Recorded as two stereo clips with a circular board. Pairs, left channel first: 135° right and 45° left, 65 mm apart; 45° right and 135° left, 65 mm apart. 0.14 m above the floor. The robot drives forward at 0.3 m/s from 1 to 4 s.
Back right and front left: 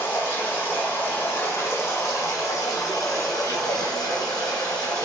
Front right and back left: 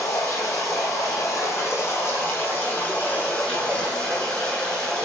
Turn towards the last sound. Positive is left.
turn(degrees=-120)